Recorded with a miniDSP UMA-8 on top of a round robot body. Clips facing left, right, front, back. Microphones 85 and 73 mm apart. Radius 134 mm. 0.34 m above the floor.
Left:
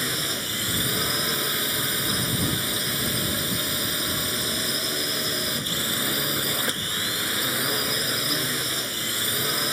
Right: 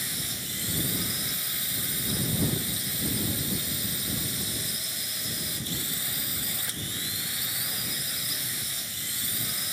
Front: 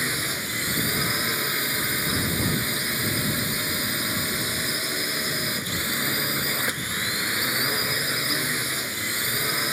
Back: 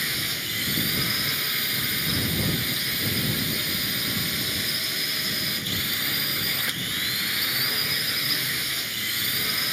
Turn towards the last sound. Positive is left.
turn(degrees=60)